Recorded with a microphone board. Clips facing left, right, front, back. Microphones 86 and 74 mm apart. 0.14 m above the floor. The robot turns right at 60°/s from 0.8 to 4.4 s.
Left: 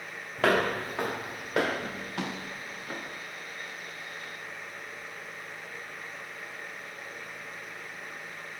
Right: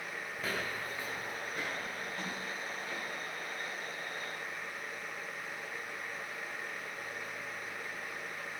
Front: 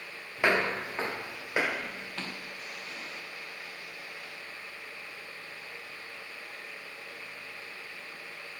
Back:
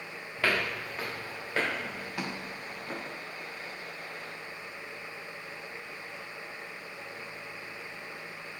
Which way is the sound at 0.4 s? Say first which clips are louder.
Left 14 dB, front 3 dB; 75° left.